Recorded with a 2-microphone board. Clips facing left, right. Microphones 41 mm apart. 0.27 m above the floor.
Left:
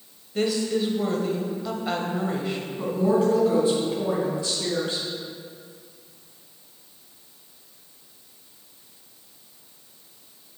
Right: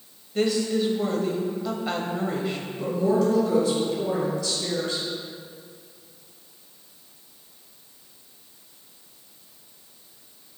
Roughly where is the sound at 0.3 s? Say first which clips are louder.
Right 1 dB; centre.